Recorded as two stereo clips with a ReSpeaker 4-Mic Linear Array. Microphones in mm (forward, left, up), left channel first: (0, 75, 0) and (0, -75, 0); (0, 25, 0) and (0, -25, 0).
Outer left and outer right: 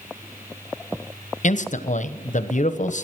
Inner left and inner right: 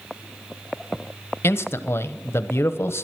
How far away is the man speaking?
About 1.0 m.